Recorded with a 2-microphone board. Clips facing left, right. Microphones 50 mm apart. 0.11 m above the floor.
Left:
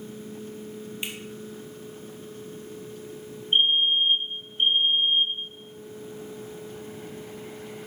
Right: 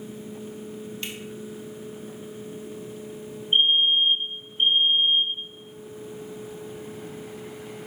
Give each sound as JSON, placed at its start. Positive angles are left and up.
{"t": 1.0, "sound": "a finger snap", "side_deg": 15, "distance_m": 2.0}
{"t": 3.5, "sound": "a fire alarm", "side_deg": 5, "distance_m": 3.5}